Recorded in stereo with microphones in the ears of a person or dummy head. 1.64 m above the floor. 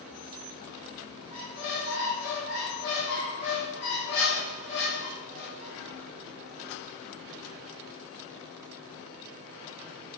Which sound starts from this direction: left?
A squeak, at 1.3 s.